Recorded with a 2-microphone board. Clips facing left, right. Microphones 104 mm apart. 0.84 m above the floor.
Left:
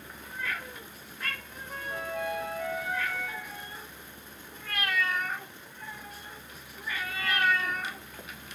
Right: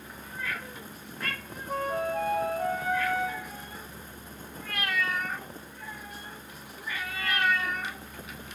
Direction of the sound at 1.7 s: 40° right (ahead or behind).